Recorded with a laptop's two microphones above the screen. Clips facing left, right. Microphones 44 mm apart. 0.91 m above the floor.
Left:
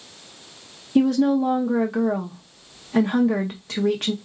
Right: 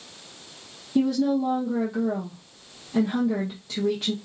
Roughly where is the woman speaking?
Left.